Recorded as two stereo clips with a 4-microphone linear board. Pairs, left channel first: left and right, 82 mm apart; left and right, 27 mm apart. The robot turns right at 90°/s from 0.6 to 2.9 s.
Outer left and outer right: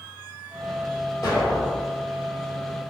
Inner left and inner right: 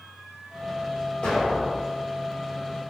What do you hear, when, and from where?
1.2 s an explosion: 140° left, 1.9 m; by 2.0 s 150° right, 1.9 m